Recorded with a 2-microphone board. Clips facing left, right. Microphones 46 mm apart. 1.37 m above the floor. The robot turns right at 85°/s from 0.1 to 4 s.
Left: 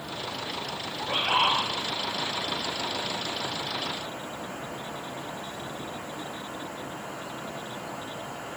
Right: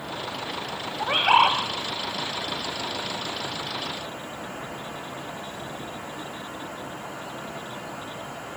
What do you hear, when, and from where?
1.0 s a bird: 130° right, 2.5 m; by 1.6 s 80° right, 2.5 m